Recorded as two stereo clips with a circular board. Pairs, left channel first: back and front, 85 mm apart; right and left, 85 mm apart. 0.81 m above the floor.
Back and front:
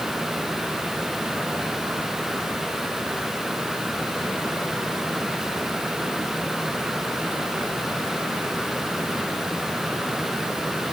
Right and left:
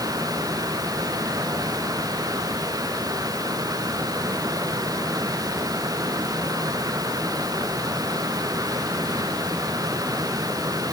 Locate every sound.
Only background noise.